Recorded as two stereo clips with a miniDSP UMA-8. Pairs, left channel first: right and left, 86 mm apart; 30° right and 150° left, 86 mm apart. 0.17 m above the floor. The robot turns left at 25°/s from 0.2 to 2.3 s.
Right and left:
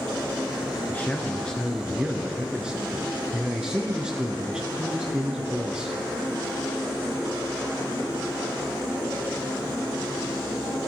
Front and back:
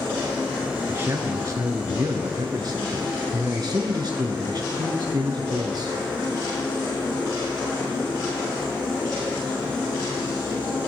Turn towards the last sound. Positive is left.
turn(degrees=170)